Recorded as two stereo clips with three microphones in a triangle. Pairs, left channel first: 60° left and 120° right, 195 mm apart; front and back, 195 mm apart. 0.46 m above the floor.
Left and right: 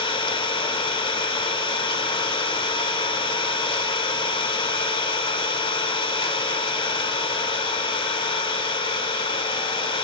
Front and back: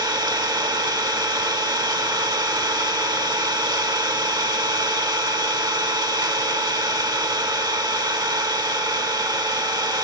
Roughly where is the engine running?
Behind left.